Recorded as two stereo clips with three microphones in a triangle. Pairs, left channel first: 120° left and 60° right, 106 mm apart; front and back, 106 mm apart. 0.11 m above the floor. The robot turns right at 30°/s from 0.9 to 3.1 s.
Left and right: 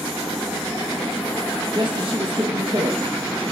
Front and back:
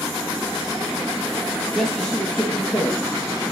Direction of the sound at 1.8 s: 90° right.